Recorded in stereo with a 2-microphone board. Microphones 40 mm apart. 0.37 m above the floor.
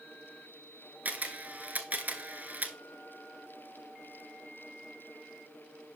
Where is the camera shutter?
40° right (ahead or behind), 1.2 m.